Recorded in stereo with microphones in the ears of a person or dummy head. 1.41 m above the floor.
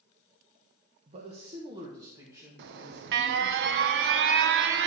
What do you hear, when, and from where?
1.1 s a man speaking: 40° right (ahead or behind), 0.9 m; by 3.6 s 10° right (ahead or behind), 2.5 m
2.6 s an alarm: 65° right (ahead or behind), 0.5 m